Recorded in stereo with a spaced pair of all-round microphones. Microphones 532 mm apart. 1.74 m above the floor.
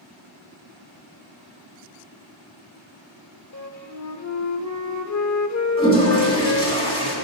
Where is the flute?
35° left (ahead or behind), 0.6 m.